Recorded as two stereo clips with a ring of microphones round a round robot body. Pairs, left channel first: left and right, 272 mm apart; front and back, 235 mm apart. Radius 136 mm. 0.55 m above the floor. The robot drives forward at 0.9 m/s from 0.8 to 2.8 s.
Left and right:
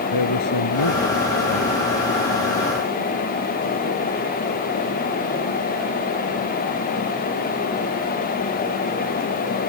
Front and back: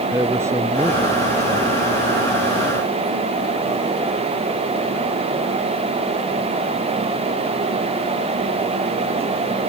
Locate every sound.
0.1 s a man speaking: 100° left; by 1.8 s 105° left